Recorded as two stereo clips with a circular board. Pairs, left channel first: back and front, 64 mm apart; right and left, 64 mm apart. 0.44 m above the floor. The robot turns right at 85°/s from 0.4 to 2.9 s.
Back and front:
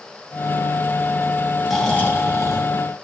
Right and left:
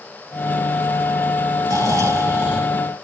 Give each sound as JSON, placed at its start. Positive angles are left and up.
{"t": 1.6, "sound": "snoring", "azimuth_deg": 85, "distance_m": 3.0}